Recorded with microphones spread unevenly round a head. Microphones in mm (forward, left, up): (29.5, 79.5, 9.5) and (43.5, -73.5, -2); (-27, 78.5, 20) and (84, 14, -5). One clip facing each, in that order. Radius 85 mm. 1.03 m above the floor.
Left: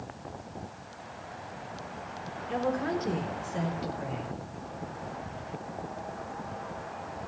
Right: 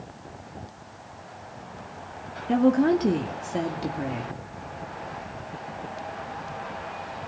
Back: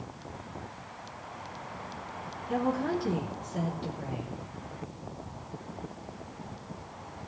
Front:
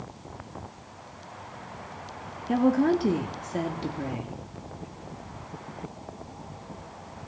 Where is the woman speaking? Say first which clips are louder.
Right 10 dB, front 7 dB; 65° right, 2.5 m.